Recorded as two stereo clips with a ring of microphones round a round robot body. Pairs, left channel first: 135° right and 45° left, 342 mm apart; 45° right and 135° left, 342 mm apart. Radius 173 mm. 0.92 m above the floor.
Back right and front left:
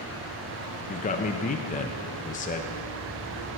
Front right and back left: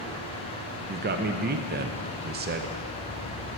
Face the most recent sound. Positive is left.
turn(degrees=175)